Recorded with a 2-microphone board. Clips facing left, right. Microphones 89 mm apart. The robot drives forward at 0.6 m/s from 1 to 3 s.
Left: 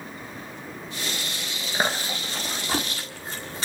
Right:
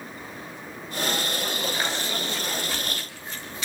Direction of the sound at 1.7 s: 45° left (ahead or behind).